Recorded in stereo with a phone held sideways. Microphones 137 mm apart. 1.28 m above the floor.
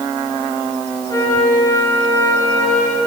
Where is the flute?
25° left (ahead or behind), 8 m.